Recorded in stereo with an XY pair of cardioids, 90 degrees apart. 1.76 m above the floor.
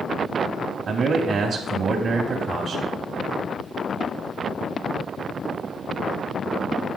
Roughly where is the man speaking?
Ahead right.